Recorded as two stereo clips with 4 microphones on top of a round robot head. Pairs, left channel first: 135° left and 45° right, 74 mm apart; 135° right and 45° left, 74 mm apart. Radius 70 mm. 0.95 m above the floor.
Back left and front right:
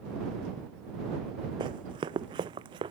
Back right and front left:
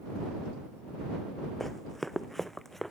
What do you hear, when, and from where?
1.6 s running footsteps: 50° right